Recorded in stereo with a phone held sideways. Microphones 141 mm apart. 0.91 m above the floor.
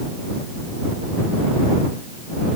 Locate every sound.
Only background noise.